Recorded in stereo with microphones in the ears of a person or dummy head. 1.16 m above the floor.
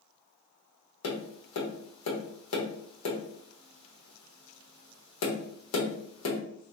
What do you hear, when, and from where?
1.0 s tapping: 85° left, 1.3 m